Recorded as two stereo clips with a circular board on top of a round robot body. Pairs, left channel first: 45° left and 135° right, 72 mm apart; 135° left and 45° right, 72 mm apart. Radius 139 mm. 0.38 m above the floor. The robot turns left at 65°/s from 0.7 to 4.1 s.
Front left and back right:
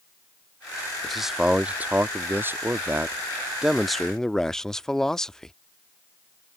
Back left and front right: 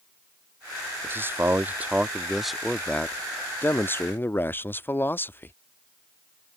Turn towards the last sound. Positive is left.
turn(degrees=120)